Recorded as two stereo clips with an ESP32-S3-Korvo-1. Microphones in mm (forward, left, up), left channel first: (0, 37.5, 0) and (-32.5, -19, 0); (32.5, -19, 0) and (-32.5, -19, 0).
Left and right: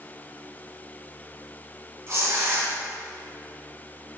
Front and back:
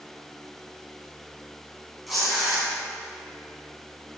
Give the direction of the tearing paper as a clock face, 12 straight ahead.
3 o'clock.